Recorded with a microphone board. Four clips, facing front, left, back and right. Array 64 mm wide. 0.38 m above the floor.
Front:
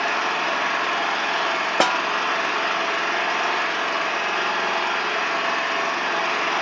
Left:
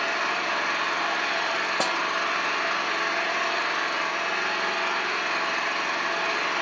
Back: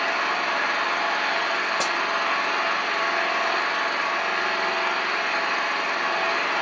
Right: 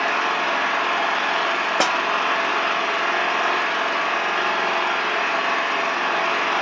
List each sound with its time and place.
0.0 s an engine running: 60° right, 4.5 m
1.8 s a snare drum: 30° right, 0.7 m